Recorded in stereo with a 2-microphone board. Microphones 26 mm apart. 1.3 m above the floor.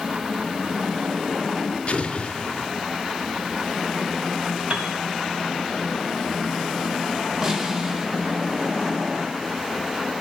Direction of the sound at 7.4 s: 25° right (ahead or behind).